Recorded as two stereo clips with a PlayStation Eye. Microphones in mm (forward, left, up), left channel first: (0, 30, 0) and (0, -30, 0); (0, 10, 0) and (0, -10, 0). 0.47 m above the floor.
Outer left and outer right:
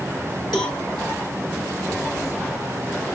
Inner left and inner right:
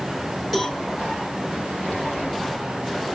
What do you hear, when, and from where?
0.5 s a cowbell: centre (ahead or behind), 2.5 m